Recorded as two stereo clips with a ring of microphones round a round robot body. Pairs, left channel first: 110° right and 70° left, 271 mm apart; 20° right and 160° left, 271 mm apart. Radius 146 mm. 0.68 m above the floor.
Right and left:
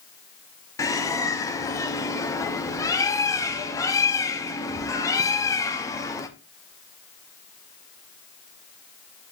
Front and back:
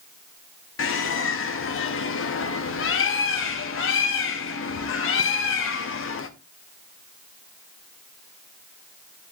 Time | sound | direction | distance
0.8 | a bird | 40° right | 0.8 m